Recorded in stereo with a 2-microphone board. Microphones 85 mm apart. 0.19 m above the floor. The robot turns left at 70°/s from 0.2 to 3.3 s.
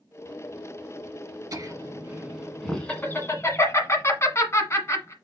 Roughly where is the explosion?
No explosion in this recording.